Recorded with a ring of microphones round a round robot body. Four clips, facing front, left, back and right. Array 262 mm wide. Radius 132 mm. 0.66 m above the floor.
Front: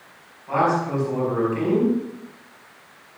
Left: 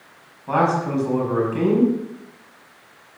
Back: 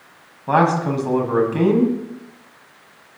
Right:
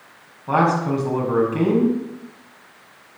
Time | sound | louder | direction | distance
0.5 | a man speaking | right 1 dB, back 4 dB | straight behind | 5.5 m